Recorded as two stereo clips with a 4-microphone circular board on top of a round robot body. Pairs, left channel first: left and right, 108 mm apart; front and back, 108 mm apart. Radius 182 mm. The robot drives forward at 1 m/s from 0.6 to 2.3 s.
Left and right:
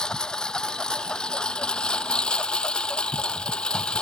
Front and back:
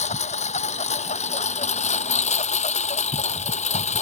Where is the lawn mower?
5° left; by 4.0 s 10° left.